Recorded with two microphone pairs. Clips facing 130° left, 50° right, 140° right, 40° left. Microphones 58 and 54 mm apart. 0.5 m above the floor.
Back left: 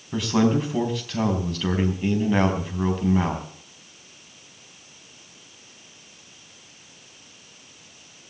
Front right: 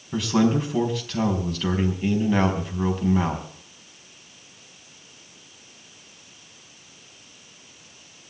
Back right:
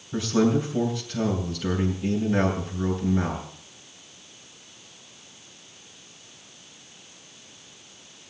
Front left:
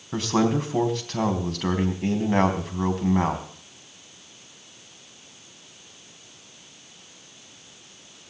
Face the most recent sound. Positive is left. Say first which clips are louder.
# even, even
turn(degrees=40)